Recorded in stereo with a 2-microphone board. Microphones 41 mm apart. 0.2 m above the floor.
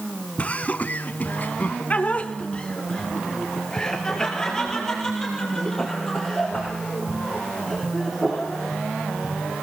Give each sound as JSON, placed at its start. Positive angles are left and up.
{"t": 0.4, "sound": "laughter", "side_deg": 30, "distance_m": 1.4}